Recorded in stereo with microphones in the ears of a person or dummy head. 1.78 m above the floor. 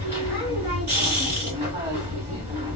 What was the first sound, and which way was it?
A machine running, 15° right (ahead or behind).